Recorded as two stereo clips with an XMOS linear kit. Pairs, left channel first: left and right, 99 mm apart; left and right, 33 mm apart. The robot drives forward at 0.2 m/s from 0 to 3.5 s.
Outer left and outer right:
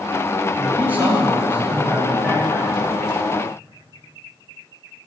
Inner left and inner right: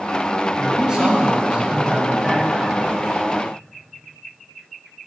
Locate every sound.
0.6 s a man speaking: 20° right (ahead or behind), 1.4 m; by 2.9 s 15° right (ahead or behind), 1.6 m